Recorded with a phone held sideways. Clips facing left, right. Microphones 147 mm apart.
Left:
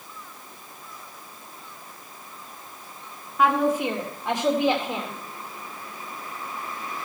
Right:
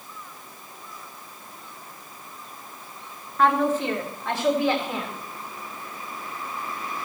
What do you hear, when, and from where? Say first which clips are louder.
3.4 s a woman speaking: even; 10° left (ahead or behind), 1.9 m; by 5.2 s 25° left (ahead or behind), 2.5 m